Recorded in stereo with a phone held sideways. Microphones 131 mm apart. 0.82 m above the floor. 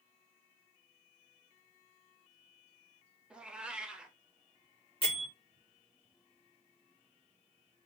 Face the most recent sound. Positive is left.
turn(degrees=40)  # may be behind; listen again after turning